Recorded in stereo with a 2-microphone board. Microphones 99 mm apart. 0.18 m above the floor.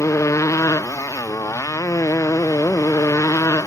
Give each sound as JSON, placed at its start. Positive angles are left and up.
{"t": 0.0, "sound": "a motorcycle", "side_deg": 30}